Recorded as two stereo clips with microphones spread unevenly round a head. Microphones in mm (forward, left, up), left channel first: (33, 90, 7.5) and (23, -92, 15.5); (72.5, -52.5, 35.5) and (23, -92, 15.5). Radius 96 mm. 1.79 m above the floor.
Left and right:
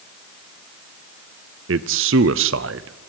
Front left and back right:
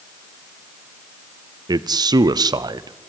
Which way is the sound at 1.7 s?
125° right.